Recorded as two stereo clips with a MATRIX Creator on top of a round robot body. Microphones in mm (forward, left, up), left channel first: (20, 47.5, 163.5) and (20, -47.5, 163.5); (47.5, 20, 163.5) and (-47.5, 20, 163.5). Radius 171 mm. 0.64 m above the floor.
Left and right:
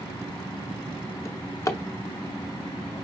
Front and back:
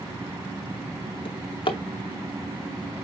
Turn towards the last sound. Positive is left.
turn(degrees=30)